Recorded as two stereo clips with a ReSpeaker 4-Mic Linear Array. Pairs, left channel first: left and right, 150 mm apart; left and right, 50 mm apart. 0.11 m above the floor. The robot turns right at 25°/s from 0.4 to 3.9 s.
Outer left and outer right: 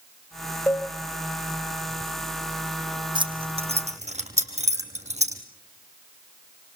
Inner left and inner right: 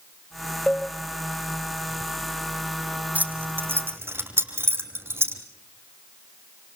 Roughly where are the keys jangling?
Right.